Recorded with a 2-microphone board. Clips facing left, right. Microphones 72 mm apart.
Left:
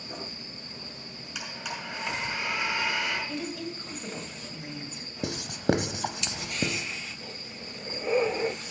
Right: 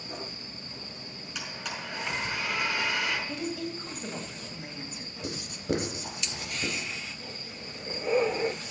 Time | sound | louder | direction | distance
1.4 | a blender | left 1 dB | 5° left (ahead or behind) | 5 m
3.3 | a woman speaking | right 1 dB | 5° right (ahead or behind) | 3 m
5.2 | writing | left 5 dB | 80° left | 0.9 m